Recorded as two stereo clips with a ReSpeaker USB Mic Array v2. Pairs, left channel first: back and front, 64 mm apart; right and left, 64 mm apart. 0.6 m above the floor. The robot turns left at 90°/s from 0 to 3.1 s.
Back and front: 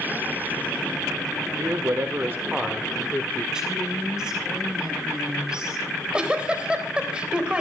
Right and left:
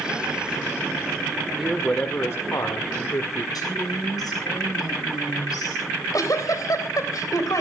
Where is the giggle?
75° right, 3 m.